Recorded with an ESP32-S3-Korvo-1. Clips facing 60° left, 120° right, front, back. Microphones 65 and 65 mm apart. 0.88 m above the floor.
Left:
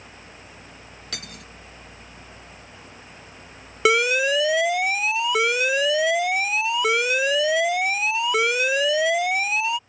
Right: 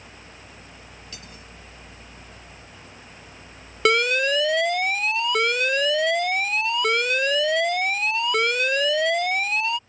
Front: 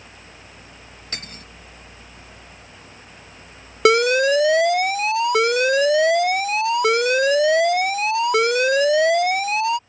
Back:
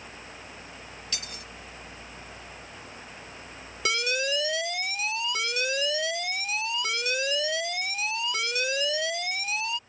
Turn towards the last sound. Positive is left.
turn(degrees=-25)